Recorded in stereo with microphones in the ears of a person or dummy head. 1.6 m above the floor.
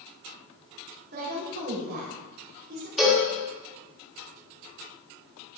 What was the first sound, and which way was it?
A woman speaking, 45° right (ahead or behind).